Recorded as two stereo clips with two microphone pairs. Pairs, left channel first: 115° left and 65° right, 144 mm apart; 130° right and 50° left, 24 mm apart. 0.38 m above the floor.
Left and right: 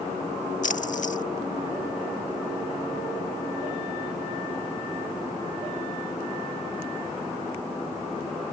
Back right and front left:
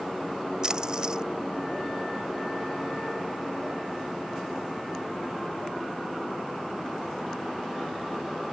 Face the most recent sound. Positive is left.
turn(degrees=100)